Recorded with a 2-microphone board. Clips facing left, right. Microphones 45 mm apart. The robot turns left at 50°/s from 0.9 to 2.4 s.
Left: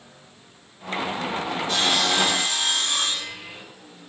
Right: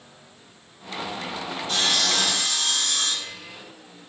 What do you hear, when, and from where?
1.7 s sawing: 175° right, 6 m; by 3.6 s 150° left, 6 m